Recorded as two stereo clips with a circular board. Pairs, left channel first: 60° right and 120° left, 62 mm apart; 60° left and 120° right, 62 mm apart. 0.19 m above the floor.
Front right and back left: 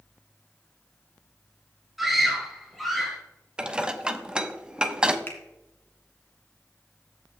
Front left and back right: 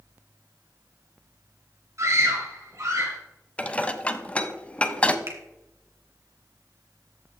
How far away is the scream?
About 2.5 m.